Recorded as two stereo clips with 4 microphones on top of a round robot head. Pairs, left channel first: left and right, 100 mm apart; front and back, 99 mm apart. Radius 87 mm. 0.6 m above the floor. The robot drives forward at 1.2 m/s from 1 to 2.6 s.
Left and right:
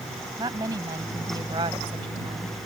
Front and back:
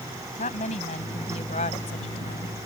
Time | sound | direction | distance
0.4 | a woman speaking | 25° right | ?